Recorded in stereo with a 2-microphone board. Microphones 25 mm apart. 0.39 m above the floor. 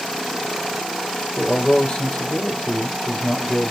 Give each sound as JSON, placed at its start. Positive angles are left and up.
{"t": 1.4, "sound": "a man speaking", "side_deg": 60, "distance_m": 5.0}